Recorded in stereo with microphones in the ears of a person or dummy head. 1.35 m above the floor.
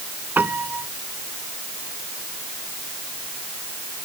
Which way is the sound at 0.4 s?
10° right (ahead or behind).